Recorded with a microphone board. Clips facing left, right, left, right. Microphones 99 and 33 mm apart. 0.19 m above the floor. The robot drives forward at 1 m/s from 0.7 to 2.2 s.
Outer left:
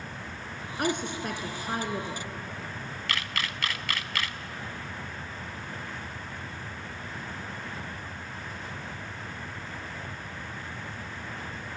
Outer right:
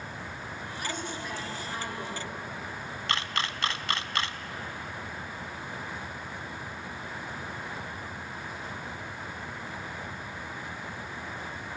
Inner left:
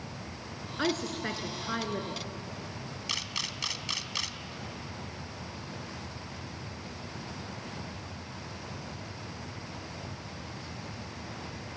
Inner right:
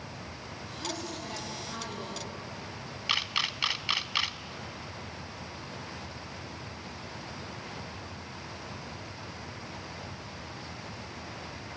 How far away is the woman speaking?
About 3 m.